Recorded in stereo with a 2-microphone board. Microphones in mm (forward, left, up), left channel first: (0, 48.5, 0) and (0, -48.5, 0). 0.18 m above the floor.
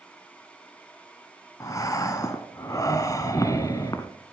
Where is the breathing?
40° left (ahead or behind), 1.1 m.